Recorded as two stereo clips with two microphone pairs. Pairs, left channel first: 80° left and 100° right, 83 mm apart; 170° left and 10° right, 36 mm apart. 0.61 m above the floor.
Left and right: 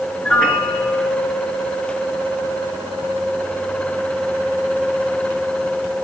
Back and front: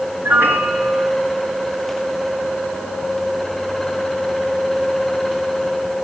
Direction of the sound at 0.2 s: Straight ahead.